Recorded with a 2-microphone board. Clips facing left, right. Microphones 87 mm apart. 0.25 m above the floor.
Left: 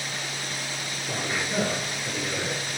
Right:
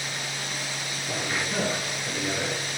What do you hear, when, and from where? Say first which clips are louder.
1.1 s a man speaking: even; 10° left (ahead or behind), 5.5 m; by 2.5 s centre (ahead or behind), 5.5 m